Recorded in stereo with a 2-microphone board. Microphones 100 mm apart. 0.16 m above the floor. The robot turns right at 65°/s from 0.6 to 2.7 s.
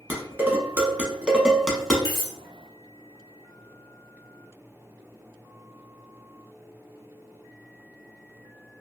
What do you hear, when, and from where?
0.1 s dishes clattering: 20° right (ahead or behind), 0.7 m; by 1.9 s 5° left (ahead or behind), 0.7 m
2.0 s cutlery clinking: 45° left (ahead or behind), 1.4 m; by 2.3 s 50° left (ahead or behind), 1.4 m